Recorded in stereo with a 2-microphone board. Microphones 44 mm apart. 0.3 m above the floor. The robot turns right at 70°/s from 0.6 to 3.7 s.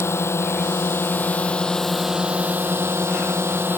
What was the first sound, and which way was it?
A drone, 85° left.